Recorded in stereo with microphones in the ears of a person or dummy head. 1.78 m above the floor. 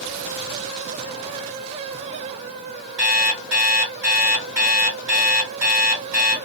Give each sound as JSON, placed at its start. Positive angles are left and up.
{"t": 3.0, "sound": "an alarm clock", "side_deg": -60, "distance_m": 2.5}